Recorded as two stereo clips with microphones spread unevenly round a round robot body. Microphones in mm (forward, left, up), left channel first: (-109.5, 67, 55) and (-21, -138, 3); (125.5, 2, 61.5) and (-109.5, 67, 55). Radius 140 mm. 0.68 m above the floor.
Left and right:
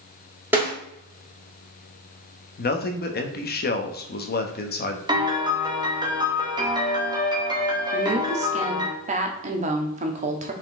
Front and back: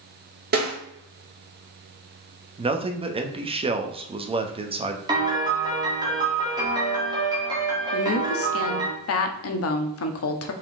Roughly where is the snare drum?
Behind right.